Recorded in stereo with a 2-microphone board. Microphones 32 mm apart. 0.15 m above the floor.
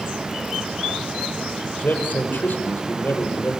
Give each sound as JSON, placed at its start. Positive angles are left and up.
{"t": 1.8, "sound": "a man speaking", "side_deg": 70, "distance_m": 5.5}